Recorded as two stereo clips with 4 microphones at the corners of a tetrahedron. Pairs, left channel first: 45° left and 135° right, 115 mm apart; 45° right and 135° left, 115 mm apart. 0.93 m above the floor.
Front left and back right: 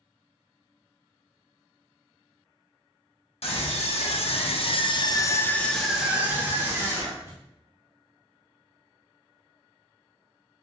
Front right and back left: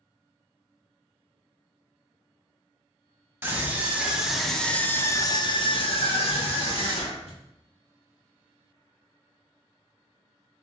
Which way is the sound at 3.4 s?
65° left.